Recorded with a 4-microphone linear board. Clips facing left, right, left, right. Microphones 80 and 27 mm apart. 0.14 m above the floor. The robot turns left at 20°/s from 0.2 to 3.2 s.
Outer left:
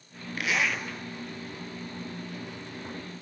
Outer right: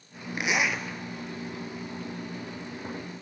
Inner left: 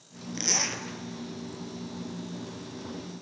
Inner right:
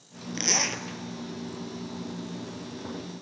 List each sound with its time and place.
0.4 s a zipper: 20° right (ahead or behind), 0.6 m; by 0.8 s 10° right (ahead or behind), 0.6 m